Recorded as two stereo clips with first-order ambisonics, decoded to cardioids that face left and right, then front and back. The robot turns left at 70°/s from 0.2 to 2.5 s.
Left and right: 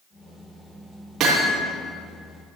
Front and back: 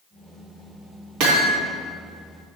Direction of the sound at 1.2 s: 150° right.